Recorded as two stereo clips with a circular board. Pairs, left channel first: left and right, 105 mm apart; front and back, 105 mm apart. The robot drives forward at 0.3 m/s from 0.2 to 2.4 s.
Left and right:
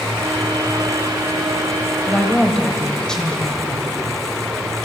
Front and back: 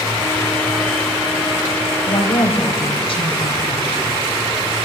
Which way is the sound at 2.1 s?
5° left.